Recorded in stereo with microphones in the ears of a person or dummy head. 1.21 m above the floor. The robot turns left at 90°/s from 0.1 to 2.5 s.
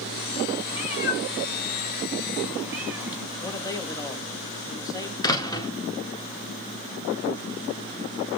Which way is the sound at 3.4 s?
15° left (ahead or behind).